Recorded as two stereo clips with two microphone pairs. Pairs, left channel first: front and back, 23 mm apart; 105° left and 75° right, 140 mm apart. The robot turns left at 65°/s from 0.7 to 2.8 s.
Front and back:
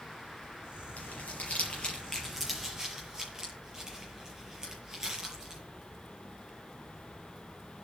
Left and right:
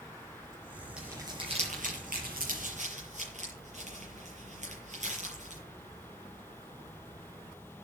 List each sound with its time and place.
1.0 s crumpling: 10° left, 7 m; by 5.6 s 110° right, 7 m